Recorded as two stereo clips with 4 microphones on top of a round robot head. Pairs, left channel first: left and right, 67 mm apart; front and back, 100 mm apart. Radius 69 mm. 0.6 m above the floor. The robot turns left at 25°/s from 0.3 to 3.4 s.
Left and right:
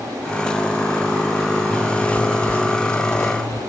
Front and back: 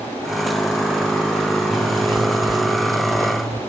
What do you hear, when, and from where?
1.7 s a zipper: 165° left, 2.5 m; by 3.6 s 120° left, 2.5 m